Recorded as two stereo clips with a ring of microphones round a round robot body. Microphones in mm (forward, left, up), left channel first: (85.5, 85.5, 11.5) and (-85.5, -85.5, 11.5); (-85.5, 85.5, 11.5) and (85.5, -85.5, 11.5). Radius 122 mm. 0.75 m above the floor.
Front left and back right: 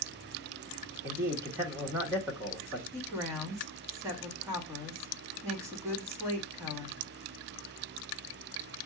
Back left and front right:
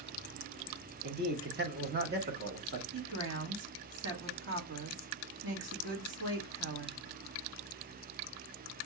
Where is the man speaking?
60° right, 1.2 m.